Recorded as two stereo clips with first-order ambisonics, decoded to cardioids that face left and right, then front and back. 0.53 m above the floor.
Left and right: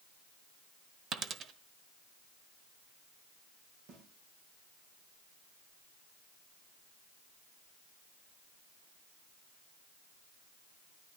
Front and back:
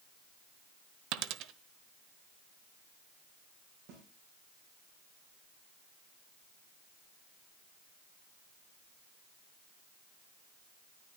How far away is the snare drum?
About 5.5 m.